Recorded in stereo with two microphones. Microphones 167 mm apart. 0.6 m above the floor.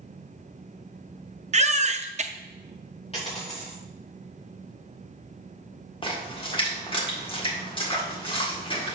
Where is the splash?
30° left (ahead or behind), 1.8 m.